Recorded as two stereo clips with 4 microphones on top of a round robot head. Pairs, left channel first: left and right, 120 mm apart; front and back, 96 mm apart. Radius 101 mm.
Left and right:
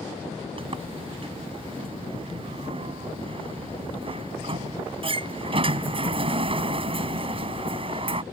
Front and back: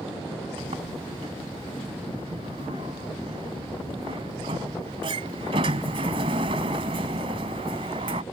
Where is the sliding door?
135° right.